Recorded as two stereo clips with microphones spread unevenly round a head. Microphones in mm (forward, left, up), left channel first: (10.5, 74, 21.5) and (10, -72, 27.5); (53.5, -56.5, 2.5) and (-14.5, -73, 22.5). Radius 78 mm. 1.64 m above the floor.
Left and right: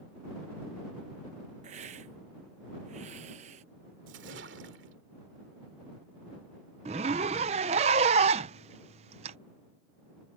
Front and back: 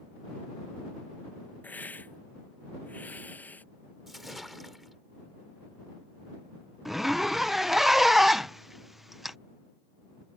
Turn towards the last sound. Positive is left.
turn(degrees=-105)